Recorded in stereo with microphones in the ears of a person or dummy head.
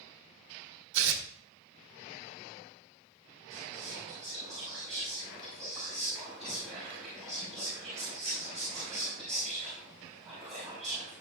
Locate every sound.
0.9 s tearing paper: 80° right, 1.5 m
3.5 s whispering: centre (ahead or behind), 5 m